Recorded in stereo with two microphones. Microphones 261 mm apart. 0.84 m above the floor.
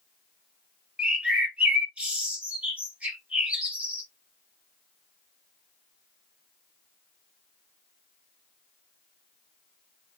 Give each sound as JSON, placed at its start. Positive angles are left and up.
{"t": 1.0, "sound": "a bird", "side_deg": -5, "distance_m": 1.1}